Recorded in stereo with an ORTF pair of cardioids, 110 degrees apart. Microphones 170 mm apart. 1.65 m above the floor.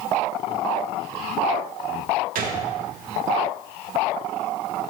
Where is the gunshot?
60° right, 0.9 m.